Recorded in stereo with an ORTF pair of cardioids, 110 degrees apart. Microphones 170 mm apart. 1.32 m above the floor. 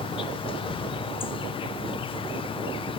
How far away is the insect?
About 0.7 m.